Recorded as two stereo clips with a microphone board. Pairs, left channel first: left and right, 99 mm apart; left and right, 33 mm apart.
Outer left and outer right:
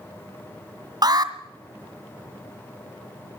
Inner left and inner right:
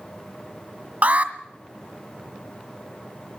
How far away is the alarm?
About 1.8 m.